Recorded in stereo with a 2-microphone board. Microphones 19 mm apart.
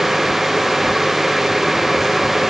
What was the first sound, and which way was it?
Only background noise.